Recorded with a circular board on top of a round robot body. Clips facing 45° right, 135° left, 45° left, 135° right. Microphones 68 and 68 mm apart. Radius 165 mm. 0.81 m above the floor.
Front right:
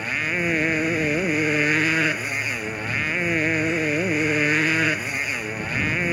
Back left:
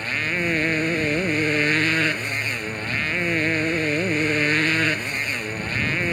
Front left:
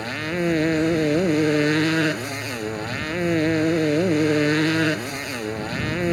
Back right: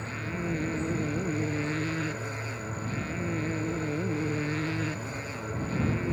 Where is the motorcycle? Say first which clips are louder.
Even, front left 10 dB; 35° left.